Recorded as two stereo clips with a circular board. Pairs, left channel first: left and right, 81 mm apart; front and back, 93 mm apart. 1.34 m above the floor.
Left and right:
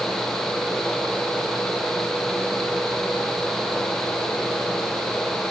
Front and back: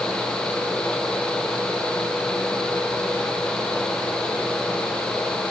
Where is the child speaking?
No child speaking in this recording.